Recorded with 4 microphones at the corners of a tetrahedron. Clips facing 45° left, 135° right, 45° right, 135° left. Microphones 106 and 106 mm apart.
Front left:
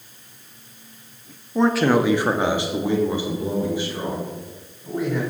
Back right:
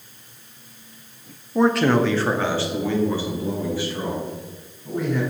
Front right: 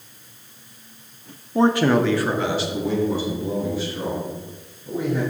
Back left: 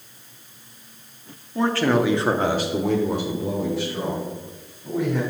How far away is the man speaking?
About 0.8 m.